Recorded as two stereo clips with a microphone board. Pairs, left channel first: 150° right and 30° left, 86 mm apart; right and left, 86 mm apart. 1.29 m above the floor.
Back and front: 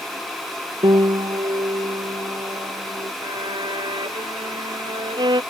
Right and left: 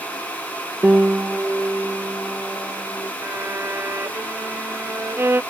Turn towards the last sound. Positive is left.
turn(degrees=30)